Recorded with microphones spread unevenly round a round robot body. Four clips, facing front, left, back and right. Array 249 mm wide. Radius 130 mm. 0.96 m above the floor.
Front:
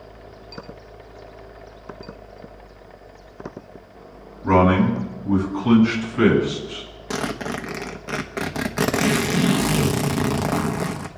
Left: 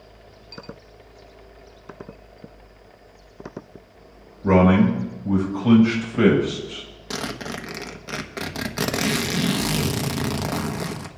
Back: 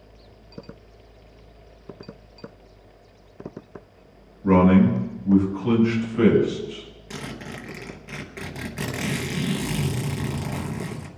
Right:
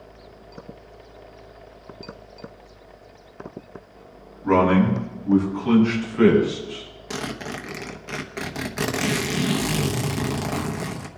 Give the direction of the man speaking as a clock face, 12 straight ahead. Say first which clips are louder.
Left 1 dB, even; 8 o'clock.